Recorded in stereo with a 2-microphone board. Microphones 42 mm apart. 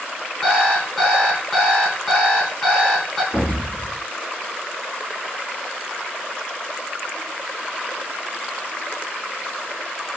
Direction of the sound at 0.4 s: Centre (ahead or behind).